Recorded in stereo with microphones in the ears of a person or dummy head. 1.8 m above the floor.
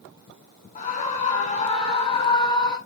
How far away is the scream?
About 4 m.